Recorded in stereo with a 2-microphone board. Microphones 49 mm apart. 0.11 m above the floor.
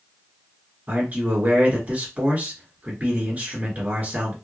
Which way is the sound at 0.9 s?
35° right (ahead or behind).